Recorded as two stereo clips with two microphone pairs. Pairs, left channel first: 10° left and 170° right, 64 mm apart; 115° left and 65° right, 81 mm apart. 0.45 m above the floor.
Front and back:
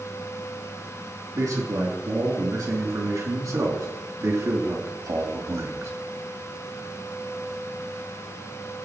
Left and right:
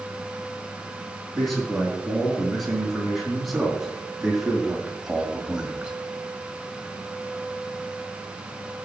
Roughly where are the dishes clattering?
I don't hear dishes clattering.